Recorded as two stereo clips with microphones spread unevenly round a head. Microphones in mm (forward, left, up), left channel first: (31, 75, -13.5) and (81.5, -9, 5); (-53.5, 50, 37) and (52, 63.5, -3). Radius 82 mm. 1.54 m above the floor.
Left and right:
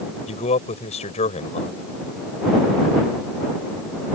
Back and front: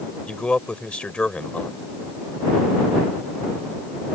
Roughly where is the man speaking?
Behind left.